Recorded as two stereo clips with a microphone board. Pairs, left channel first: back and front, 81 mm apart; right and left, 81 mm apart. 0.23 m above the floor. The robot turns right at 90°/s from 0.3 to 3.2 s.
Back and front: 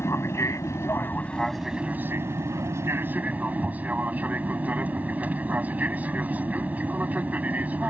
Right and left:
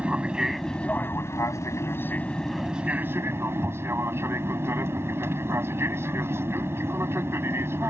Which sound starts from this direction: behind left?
An aircraft, at 0.0 s.